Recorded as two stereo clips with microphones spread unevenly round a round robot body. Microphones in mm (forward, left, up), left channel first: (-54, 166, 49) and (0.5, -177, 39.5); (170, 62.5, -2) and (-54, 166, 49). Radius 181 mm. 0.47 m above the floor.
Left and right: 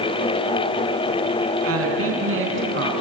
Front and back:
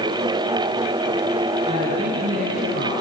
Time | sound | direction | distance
1.7 | a woman speaking | 130° right | 4.5 m